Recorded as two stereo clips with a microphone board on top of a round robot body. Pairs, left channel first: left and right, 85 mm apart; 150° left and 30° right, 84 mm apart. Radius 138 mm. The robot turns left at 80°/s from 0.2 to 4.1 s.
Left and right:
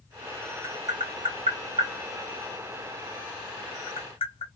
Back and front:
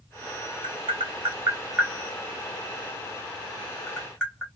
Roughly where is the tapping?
Ahead.